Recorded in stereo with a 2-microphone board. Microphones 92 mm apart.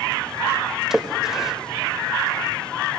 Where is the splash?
5° right (ahead or behind), 1.0 m.